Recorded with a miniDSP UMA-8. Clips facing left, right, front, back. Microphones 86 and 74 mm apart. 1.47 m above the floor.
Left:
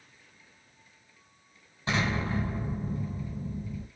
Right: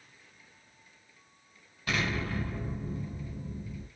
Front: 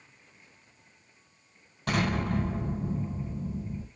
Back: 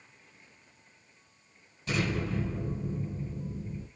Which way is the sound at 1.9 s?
25° left.